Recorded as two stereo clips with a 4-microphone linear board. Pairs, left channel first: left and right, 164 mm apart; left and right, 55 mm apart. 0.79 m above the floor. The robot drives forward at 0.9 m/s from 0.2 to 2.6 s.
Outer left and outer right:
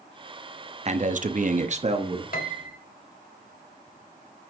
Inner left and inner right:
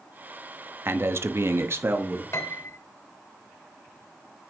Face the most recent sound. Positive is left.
turn(degrees=65)  # may be behind; listen again after turning